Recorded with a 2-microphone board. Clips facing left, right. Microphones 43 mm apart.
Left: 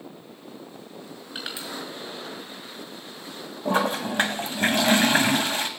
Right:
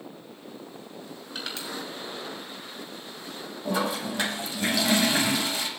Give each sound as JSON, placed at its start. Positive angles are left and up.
{"t": 1.4, "sound": "crushing", "side_deg": 15, "distance_m": 5.0}
{"t": 3.6, "sound": "a toilet flushing", "side_deg": 45, "distance_m": 2.0}